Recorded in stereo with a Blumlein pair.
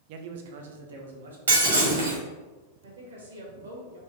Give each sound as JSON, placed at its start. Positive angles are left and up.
{"t": 0.1, "sound": "a man speaking", "azimuth_deg": -45, "distance_m": 0.5}
{"t": 1.5, "sound": "breaking glass", "azimuth_deg": -70, "distance_m": 1.9}
{"t": 2.8, "sound": "a woman speaking", "azimuth_deg": -65, "distance_m": 1.5}